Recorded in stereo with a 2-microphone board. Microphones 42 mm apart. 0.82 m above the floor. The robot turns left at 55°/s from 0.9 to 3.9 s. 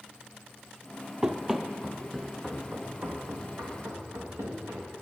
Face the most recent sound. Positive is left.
turn(degrees=-80)